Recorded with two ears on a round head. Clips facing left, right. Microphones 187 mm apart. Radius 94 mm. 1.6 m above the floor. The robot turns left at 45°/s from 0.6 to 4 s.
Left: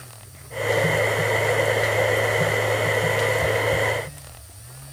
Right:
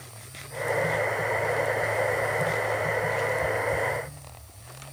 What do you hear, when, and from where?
Only background noise.